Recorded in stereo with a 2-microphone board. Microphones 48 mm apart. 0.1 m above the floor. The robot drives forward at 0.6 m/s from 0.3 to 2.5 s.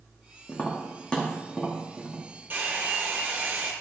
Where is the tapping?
25° left (ahead or behind), 1.7 m; by 2.2 s 15° left (ahead or behind), 2.5 m.